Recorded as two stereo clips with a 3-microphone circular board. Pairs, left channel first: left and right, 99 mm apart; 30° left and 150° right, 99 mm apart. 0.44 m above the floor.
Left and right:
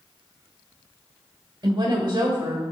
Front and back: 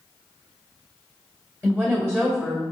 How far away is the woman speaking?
About 1.2 m.